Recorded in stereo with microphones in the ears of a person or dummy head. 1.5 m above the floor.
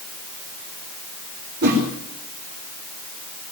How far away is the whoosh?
About 4 m.